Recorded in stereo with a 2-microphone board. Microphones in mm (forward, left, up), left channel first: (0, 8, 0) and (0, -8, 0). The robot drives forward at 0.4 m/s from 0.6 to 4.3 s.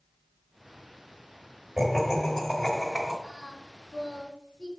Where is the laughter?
20° right (ahead or behind), 1.5 m; by 3.1 s 15° right (ahead or behind), 1.9 m.